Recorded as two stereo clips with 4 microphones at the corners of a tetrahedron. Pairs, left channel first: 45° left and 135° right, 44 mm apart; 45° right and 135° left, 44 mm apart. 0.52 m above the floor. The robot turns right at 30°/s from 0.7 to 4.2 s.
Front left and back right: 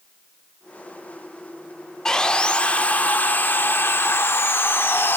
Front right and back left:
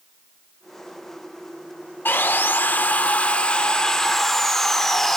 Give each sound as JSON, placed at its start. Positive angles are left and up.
{"t": 2.0, "sound": "sawing", "azimuth_deg": -25, "distance_m": 0.6}